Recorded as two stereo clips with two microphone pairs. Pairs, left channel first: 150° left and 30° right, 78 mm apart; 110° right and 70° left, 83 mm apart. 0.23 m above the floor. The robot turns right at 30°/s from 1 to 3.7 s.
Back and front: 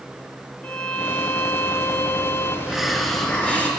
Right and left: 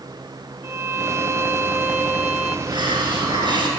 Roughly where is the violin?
Left.